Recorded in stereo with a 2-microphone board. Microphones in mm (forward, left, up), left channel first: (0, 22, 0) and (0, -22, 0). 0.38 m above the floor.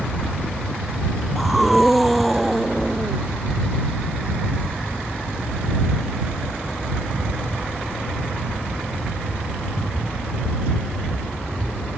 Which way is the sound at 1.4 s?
Centre (ahead or behind).